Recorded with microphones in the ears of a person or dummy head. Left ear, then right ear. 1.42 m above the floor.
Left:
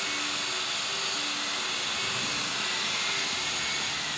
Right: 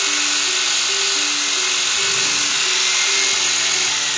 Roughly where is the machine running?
Right.